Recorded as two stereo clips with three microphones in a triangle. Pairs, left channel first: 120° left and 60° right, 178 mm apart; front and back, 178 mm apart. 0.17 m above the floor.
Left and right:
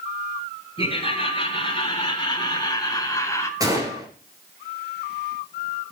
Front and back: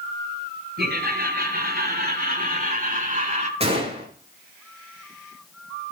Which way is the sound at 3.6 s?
130° right.